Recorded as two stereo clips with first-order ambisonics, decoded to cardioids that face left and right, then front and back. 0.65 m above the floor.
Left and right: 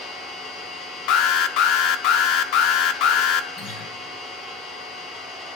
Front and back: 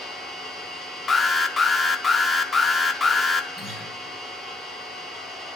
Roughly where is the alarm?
Left.